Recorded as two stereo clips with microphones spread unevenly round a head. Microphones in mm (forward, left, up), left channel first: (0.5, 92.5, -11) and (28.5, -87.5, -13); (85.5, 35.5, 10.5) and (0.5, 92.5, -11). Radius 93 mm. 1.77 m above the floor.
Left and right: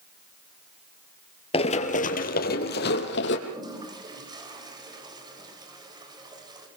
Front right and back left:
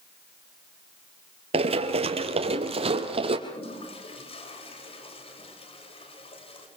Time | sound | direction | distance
1.5 | running footsteps | 145° left | 2.5 m
3.5 | a toilet flushing | 15° right | 8 m